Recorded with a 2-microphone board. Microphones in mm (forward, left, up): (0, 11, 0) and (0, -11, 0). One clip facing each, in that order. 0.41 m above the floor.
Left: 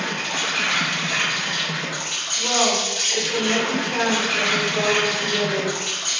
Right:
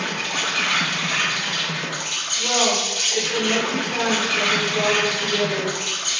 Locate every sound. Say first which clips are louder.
0.0 s an insect: even; 10° right (ahead or behind), 1.3 m
2.4 s a woman speaking: even; 10° left (ahead or behind), 1.7 m